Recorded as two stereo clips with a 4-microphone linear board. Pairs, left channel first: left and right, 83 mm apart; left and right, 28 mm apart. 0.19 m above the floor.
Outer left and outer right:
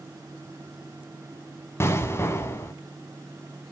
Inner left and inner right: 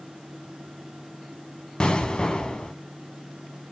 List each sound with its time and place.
1.8 s an explosion: 30° left (ahead or behind), 1.4 m